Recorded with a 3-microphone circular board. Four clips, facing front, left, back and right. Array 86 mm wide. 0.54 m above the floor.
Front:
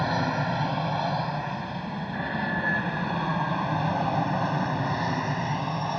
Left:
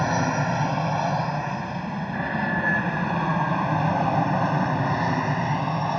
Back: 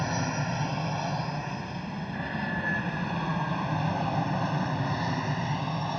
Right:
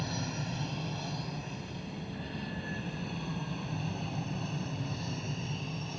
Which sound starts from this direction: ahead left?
An aircraft, at 0.0 s.